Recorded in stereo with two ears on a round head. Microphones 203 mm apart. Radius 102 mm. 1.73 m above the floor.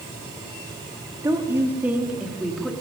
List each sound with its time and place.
1.2 s a woman speaking: 15° right (ahead or behind), 4.5 m; by 2.7 s centre (ahead or behind), 5 m